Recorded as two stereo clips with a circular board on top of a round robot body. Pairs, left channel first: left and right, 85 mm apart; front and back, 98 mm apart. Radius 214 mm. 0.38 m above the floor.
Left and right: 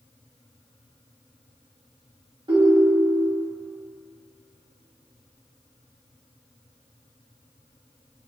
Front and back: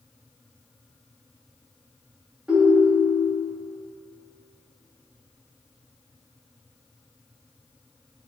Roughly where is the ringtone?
Right.